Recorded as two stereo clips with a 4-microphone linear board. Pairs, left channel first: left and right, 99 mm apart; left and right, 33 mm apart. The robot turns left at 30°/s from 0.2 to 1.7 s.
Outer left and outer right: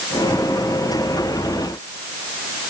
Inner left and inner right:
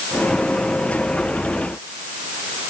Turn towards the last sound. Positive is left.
No sound to turn to.